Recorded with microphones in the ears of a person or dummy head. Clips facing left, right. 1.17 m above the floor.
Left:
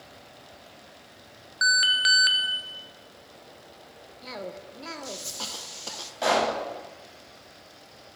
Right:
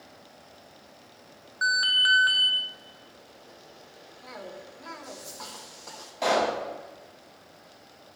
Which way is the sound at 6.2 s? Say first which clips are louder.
Even; 5° left (ahead or behind).